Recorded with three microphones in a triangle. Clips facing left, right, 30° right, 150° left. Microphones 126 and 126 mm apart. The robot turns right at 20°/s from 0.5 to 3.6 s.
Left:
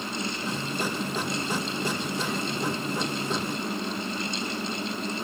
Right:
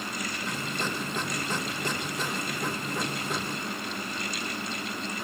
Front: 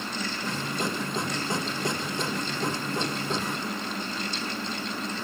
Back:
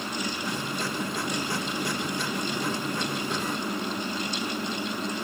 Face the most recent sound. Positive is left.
No sound to turn to.